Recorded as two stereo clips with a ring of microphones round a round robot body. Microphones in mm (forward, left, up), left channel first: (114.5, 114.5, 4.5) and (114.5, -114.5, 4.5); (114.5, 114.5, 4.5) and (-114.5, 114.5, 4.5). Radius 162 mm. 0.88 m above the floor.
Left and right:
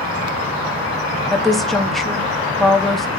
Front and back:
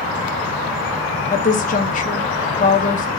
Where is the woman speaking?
Straight ahead, 0.6 m.